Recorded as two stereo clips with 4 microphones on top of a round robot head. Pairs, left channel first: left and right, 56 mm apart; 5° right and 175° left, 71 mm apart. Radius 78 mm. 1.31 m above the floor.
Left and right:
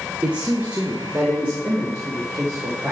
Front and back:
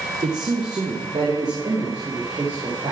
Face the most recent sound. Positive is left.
turn(degrees=-155)